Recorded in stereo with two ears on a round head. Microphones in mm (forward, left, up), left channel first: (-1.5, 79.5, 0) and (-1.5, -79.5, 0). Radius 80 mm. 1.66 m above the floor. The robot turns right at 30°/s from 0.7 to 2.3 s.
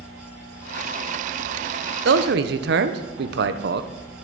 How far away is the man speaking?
About 0.9 m.